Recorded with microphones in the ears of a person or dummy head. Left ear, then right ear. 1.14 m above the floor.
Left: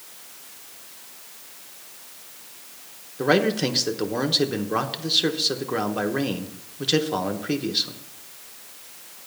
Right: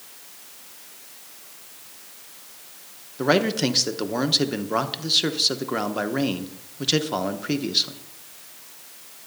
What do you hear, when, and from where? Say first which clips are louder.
3.2 s a man speaking: even; 5° right (ahead or behind), 0.9 m